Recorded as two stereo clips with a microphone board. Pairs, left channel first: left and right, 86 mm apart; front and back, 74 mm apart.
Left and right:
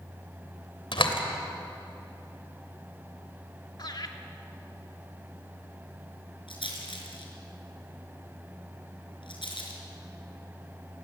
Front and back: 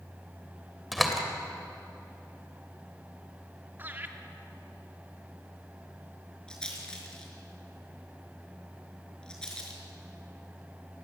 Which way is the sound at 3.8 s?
120° left.